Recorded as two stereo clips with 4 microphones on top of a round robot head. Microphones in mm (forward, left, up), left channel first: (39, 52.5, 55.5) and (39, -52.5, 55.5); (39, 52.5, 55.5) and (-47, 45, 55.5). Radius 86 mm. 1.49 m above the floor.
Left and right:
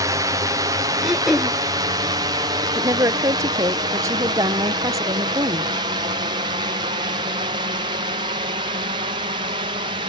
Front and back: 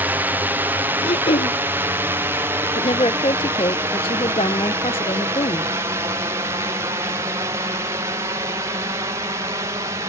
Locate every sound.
0.0 s a drone: 120° right
1.0 s throat clearing: 5° right
2.8 s a woman speaking: 35° right